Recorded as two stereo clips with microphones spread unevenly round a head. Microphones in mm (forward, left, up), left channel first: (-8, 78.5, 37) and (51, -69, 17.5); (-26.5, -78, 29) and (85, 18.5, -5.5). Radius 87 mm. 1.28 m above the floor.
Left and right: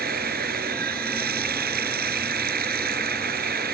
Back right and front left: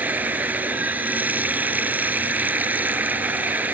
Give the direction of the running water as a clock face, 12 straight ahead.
1 o'clock.